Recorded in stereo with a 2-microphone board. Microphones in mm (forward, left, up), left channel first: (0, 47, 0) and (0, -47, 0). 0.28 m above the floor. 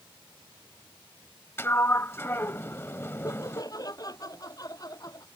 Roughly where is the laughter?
Left.